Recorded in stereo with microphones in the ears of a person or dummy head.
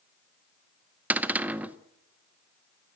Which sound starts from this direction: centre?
A cupboard door, at 1.1 s.